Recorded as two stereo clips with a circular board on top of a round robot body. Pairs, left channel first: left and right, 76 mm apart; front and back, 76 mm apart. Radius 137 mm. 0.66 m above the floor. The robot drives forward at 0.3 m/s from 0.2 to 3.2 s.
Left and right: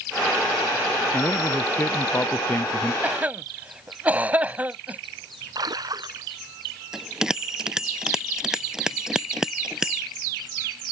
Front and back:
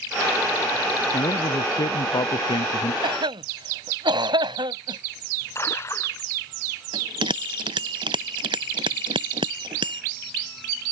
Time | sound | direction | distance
1.1 | a man speaking | 25° left | ?
3.0 | a cough | 160° right | ?
5.5 | a splash | 55° right | ?
6.9 | a bell | 175° right | ?